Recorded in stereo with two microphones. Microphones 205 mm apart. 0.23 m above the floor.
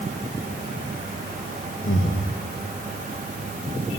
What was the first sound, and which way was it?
Breathing, 80° left.